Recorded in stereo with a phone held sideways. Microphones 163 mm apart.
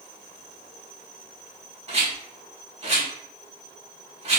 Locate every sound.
1.9 s a rattle: 40° right (ahead or behind), 1.3 m